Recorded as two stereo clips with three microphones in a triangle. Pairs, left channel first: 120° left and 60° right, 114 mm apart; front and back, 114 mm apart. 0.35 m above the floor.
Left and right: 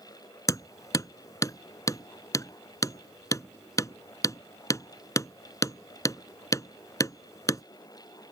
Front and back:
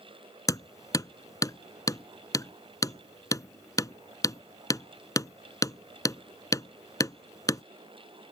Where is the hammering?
60° left.